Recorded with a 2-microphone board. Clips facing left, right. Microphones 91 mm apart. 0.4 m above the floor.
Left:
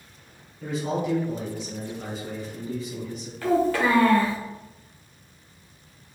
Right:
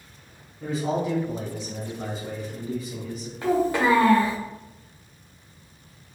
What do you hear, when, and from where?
0.6 s a man speaking: 35° right (ahead or behind), 1.4 m
3.4 s a child speaking: 20° right (ahead or behind), 0.7 m